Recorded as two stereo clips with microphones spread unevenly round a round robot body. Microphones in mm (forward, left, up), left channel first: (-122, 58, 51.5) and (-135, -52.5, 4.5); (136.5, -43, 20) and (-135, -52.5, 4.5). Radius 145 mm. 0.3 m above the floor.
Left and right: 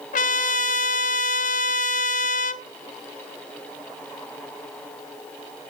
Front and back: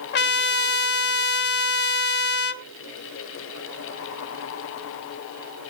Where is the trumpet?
55° left, 0.6 m.